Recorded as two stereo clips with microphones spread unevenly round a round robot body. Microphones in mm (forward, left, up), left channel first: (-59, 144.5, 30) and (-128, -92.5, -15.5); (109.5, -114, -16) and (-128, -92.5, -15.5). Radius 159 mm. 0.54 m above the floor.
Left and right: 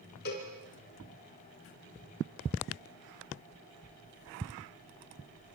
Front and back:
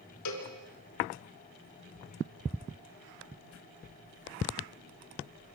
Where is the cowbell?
10° left, 3.5 m.